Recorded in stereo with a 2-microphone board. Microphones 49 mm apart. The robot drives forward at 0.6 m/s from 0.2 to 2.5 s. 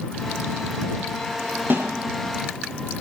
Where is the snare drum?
50° right (ahead or behind), 7 m.